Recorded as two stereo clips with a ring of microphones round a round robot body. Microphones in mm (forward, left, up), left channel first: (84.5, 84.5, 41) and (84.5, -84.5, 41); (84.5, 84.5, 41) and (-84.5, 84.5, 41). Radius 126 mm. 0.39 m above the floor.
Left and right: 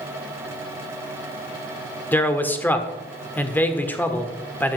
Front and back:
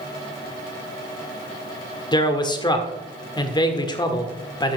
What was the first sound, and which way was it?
A man speaking, 25° left.